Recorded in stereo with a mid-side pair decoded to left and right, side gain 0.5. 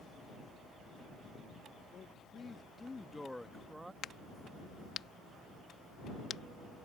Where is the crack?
55° left.